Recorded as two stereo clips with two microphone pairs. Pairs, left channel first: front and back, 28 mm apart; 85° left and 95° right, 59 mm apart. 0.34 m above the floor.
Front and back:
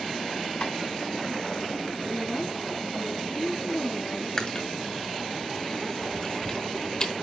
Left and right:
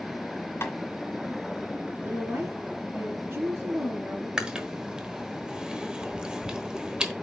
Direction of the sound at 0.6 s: 40° left.